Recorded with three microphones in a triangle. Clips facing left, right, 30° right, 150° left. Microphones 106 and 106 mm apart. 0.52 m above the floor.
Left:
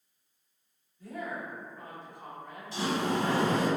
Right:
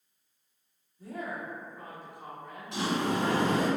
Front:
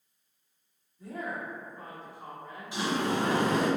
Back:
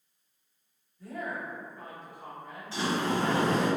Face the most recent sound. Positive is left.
turn(degrees=-105)